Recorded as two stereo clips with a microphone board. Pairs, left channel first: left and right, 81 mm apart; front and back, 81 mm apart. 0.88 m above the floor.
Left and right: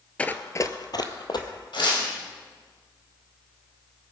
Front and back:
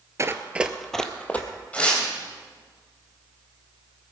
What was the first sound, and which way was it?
Running footsteps, 155° left.